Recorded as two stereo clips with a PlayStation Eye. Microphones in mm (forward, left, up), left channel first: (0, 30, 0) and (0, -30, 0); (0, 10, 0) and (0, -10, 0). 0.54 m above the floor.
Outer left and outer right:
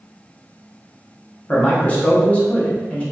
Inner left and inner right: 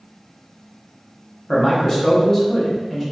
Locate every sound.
1.5 s a man speaking: 20° left (ahead or behind), 0.8 m